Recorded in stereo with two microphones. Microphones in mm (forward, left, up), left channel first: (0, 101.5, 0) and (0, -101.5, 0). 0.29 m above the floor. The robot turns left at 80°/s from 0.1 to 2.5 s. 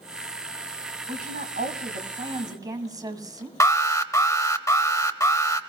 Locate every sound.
1.1 s a woman speaking: 45° right, 1.7 m; by 3.5 s 155° right, 1.7 m
3.6 s an alarm: 15° left (ahead or behind), 0.8 m